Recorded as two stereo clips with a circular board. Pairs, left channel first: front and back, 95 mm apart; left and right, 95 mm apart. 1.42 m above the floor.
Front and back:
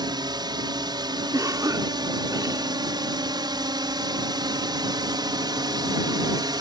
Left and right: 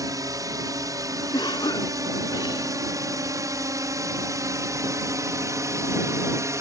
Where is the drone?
140° right; by 6.6 s 145° right.